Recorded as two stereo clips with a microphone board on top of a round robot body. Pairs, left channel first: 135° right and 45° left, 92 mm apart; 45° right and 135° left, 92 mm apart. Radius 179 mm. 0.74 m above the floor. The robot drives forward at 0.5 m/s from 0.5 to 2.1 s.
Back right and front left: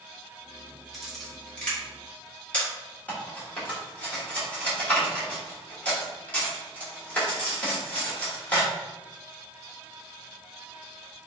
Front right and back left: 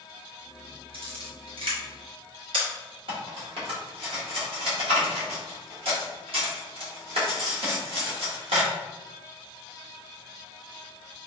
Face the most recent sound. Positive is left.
turn(degrees=150)